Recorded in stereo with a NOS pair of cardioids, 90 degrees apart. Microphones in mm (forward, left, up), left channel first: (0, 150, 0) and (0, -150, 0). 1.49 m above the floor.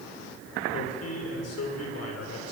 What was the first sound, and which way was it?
A man speaking, 55° left.